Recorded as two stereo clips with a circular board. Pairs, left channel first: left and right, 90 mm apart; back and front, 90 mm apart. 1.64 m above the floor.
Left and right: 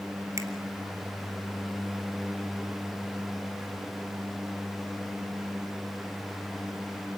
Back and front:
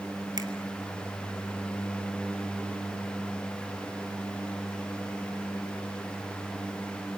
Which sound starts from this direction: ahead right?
A finger snap, at 0.4 s.